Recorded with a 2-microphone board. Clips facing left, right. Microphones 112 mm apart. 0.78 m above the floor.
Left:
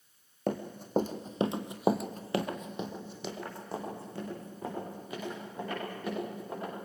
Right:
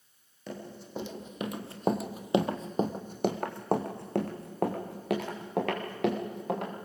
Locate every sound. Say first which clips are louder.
0.5 s running footsteps: left 7 dB; 55° left (ahead or behind), 2.5 m; by 6.7 s 80° right, 6.5 m